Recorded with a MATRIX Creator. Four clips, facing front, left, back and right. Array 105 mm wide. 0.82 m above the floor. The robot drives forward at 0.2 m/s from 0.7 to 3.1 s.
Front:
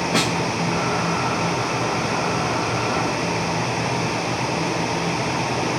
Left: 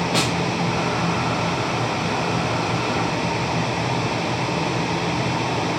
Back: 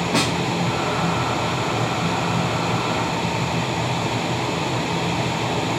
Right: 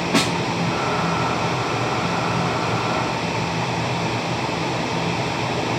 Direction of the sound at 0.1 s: 95° right.